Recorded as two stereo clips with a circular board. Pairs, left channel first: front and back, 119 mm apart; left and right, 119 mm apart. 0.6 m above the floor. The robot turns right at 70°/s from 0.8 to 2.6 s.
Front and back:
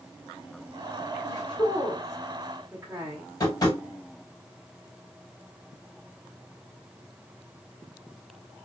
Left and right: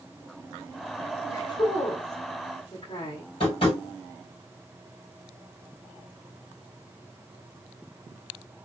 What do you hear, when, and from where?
1.3 s a woman speaking: 30° left, 1.6 m; by 3.3 s 120° left, 1.6 m
3.4 s tapping: 55° left, 2 m